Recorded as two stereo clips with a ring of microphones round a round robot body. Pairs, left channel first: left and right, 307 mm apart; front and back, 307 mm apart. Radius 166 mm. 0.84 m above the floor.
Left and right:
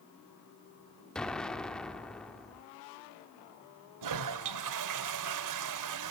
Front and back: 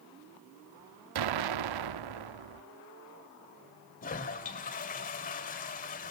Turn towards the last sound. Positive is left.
turn(degrees=-65)